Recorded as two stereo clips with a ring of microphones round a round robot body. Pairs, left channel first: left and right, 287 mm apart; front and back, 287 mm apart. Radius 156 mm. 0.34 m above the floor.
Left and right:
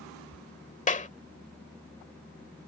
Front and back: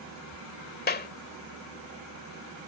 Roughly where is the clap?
Ahead left.